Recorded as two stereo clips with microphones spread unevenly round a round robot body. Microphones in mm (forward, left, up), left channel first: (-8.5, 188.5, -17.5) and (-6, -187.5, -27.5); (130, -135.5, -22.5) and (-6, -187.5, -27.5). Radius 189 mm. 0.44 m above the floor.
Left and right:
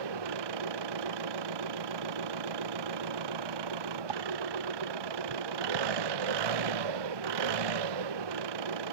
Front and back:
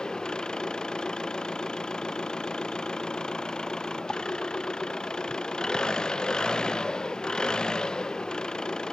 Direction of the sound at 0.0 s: 65° right.